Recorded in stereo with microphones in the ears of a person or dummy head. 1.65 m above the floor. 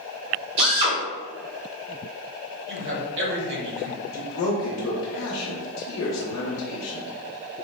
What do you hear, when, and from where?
0.6 s a drill: 55° right (ahead or behind), 1.1 m
2.7 s a man speaking: 60° right (ahead or behind), 0.9 m
4.1 s a man speaking: 80° left, 0.6 m